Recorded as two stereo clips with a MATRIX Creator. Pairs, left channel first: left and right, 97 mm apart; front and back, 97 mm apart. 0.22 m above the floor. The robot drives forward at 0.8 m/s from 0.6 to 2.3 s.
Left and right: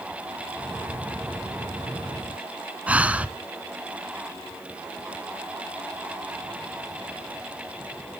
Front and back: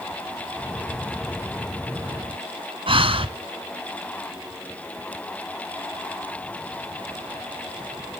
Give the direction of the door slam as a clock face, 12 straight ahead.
No door slam in this recording.